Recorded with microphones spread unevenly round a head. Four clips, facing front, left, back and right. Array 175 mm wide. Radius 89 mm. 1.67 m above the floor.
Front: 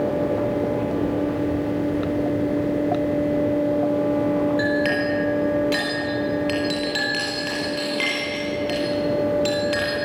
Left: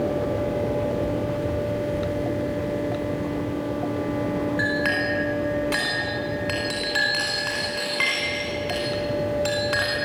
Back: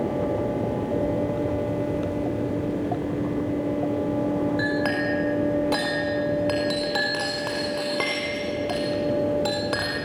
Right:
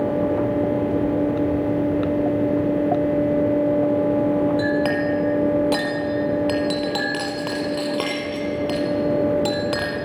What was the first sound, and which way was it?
A clink, 125° right.